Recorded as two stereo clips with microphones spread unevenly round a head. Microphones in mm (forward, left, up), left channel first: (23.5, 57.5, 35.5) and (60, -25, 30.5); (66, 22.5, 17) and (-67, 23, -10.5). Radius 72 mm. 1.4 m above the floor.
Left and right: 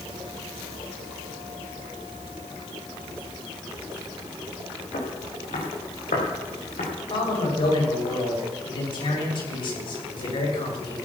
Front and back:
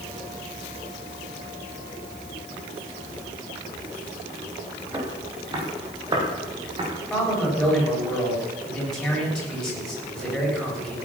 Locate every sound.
4.9 s footsteps: 115° left, 5 m; by 6.9 s 125° left, 5.5 m
7.1 s a man speaking: 85° left, 7 m